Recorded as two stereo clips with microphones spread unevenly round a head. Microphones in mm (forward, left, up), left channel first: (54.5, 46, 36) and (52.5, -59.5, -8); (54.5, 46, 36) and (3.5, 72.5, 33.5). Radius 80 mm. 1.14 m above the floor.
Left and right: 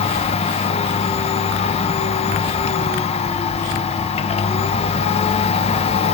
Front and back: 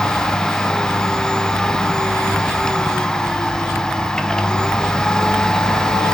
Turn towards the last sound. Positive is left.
turn(degrees=50)